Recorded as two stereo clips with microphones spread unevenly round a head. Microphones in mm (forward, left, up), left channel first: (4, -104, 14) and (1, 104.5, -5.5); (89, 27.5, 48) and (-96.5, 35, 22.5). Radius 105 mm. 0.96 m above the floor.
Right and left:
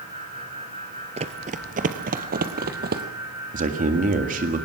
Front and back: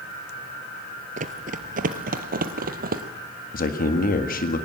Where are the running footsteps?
140° left, 1.1 m; by 3.0 s 135° left, 1.9 m.